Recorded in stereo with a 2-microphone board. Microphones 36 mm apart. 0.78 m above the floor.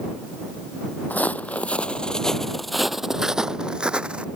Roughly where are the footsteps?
Left.